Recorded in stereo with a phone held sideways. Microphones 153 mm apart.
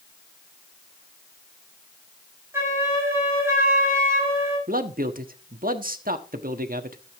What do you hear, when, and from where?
2.5 s a flute: 15° right (ahead or behind), 6.5 m
4.7 s a man speaking: 70° right (ahead or behind), 1.3 m